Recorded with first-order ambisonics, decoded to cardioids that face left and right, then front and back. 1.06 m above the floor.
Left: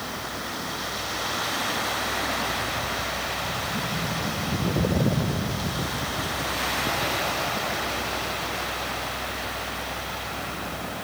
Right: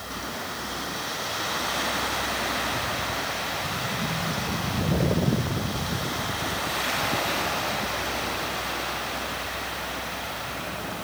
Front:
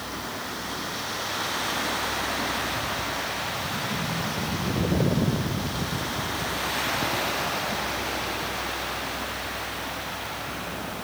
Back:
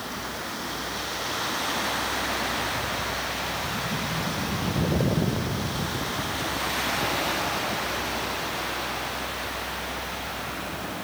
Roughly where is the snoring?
I don't hear snoring.